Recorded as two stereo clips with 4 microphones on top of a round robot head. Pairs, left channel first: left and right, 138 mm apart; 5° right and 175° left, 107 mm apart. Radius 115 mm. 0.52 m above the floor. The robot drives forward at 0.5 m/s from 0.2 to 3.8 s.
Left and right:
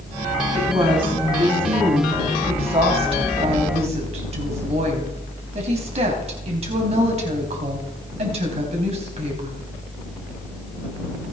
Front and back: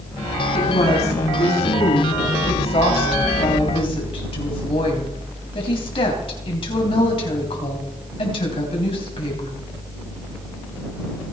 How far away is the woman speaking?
About 5 m.